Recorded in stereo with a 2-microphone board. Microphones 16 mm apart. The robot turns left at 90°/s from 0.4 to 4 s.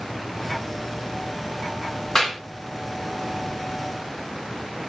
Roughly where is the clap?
Left.